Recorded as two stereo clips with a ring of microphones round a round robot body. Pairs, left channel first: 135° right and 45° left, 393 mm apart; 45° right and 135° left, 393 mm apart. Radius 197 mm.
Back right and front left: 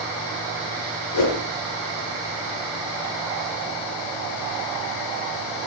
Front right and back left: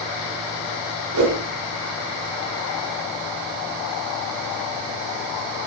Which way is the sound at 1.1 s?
175° right.